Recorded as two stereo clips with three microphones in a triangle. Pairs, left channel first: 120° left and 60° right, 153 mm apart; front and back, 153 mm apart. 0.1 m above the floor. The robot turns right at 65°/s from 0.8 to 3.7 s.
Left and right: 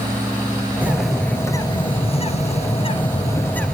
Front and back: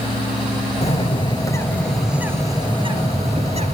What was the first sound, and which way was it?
A bird, 15° left.